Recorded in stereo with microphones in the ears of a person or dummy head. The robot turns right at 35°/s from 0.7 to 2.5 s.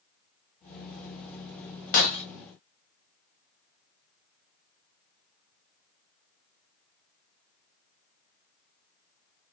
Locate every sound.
1.9 s breaking glass: 45° left (ahead or behind), 0.7 m; by 2.2 s 40° left (ahead or behind), 0.7 m